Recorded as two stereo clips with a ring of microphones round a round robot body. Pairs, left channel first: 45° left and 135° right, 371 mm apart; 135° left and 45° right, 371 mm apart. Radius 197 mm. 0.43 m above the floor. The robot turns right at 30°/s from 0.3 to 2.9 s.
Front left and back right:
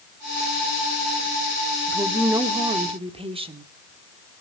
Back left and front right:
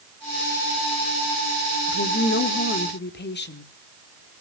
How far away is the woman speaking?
About 1.4 m.